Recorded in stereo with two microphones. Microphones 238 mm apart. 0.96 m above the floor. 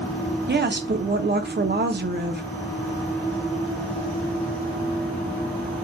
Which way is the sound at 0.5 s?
45° right (ahead or behind).